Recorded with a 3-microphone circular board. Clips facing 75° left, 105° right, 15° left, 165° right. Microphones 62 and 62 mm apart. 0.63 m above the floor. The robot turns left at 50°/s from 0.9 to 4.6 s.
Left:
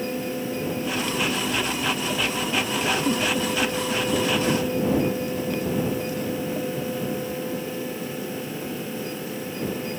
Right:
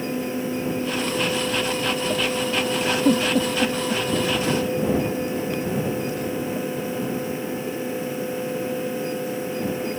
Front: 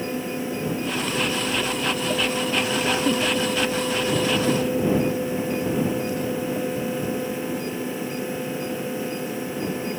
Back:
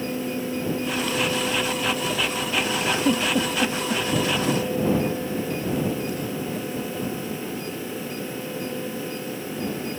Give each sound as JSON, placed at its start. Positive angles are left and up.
{"t": 3.0, "sound": "a giggle", "azimuth_deg": -85}